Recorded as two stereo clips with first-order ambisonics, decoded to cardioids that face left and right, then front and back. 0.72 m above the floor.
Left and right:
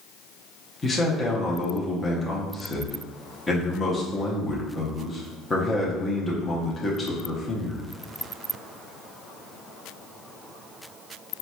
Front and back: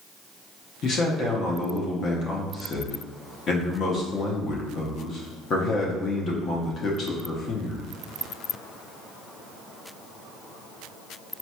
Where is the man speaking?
20° left, 0.6 m.